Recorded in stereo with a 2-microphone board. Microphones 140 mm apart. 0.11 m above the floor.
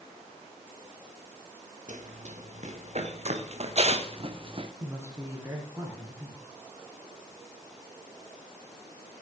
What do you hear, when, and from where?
1.9 s running footsteps: 60° right (ahead or behind), 3 m; by 4.7 s 40° right (ahead or behind), 2.0 m
4.8 s a man speaking: 20° right (ahead or behind), 7.5 m